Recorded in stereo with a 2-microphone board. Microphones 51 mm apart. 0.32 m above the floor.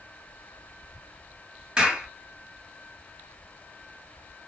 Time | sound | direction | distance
1.8 | a clap | 15° right (ahead or behind) | 5 m